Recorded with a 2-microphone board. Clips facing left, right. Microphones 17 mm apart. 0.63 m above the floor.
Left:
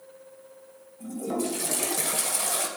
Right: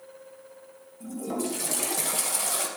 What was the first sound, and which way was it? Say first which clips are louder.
A toilet flushing: left 2 dB; 5° right (ahead or behind).